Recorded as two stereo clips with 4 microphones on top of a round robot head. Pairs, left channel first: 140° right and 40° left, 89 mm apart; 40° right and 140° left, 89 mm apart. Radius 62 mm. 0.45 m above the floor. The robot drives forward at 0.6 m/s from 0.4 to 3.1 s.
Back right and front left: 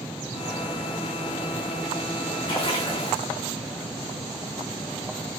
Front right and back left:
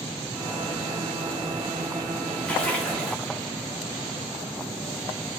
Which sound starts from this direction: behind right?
A splash, at 2.5 s.